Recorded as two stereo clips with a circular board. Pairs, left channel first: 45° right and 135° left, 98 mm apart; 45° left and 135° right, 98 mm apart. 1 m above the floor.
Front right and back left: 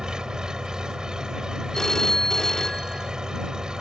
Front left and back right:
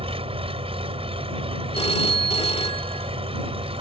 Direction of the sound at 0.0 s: 140° right.